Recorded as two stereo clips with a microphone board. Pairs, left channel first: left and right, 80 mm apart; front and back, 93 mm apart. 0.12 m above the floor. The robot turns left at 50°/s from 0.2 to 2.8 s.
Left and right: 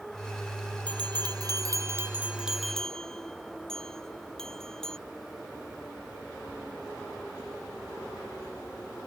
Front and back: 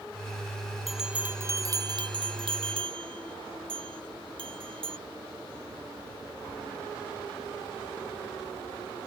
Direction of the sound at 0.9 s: 90° right.